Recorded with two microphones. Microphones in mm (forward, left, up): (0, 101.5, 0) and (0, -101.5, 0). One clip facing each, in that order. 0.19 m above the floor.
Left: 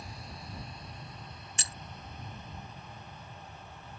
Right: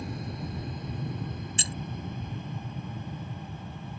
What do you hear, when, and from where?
0.0 s an aircraft: 60° right (ahead or behind); by 4.0 s 65° right (ahead or behind)
1.6 s keys jangling: 30° right (ahead or behind)